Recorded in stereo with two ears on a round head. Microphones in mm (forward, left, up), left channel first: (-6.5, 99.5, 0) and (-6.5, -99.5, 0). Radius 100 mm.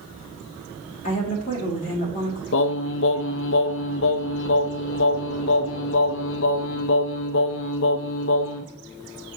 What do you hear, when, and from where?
1.0 s a woman speaking: 35° left (ahead or behind), 1.5 m
2.5 s singing: 60° left (ahead or behind), 0.5 m